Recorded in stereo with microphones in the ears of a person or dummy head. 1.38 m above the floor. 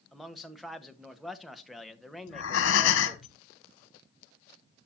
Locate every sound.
0.1 s a man speaking: centre (ahead or behind), 0.8 m
2.3 s breathing: 70° left (ahead or behind), 1.2 m